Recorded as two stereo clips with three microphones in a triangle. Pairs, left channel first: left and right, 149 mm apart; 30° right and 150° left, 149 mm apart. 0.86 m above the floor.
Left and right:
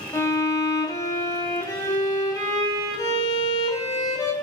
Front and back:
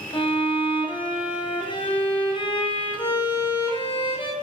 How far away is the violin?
About 0.6 m.